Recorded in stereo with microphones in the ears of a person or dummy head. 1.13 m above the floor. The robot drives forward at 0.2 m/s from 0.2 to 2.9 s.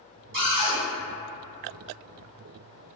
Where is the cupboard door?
55° right (ahead or behind), 1.6 m.